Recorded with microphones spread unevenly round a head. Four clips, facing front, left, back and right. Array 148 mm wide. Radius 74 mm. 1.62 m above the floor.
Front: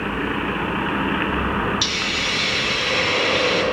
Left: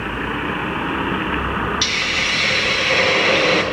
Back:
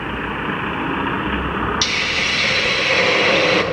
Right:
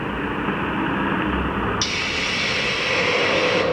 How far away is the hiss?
About 1.4 m.